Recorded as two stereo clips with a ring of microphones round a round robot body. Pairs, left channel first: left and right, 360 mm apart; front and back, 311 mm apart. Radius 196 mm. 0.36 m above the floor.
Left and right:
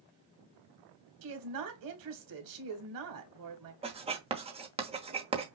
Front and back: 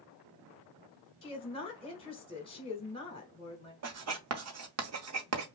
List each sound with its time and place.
1.2 s a woman speaking: 70° right, 1.6 m
3.8 s writing: 160° right, 1.1 m